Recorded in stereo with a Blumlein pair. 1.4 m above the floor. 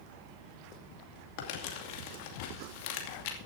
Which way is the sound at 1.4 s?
45° left.